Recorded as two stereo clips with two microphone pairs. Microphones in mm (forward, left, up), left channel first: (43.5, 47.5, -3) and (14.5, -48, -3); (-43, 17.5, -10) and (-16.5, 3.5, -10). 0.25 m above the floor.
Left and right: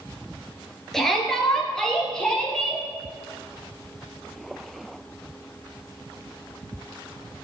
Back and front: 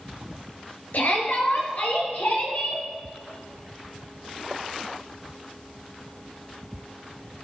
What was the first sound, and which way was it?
A shout, 160° left.